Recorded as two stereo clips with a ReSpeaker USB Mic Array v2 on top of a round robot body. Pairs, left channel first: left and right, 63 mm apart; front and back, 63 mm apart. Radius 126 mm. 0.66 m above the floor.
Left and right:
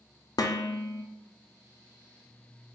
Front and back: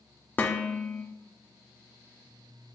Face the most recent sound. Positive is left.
turn(degrees=65)